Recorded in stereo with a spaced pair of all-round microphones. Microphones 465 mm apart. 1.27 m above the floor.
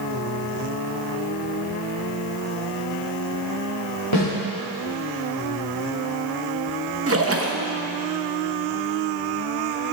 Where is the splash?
30° right (ahead or behind), 0.8 m.